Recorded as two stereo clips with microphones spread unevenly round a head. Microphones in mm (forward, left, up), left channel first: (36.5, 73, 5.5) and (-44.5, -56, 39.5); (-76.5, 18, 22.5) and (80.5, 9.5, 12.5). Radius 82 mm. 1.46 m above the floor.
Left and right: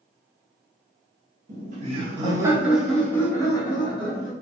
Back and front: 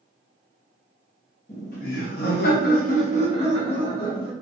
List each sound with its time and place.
1.5 s laughter: 145° right, 0.8 m; by 4.3 s 115° left, 1.1 m